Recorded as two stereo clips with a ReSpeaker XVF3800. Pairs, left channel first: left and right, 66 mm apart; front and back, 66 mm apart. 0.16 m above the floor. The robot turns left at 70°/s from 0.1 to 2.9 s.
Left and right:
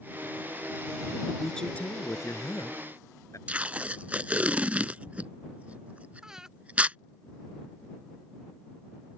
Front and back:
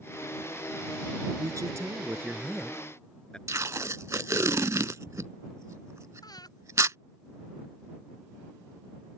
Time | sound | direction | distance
1.4 | a man speaking | straight behind | ?
3.5 | tape being pulled | 155° right | ?
6.2 | breathing | 10° right | ?